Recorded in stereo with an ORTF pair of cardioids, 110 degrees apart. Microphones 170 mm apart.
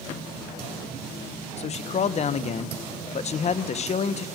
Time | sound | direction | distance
1.6 | a man speaking | 40° left | 1.4 m